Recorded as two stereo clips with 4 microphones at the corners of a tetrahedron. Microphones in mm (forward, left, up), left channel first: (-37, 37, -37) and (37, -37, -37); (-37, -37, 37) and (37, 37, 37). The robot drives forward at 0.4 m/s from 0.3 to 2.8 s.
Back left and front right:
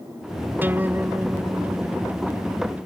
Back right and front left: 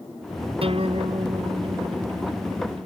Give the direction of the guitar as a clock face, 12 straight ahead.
11 o'clock.